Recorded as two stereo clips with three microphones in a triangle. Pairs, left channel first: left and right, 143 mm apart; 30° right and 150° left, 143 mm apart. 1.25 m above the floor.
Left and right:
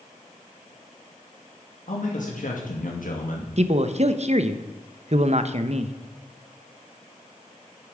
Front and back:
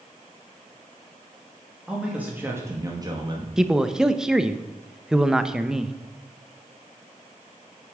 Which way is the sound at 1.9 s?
65° left.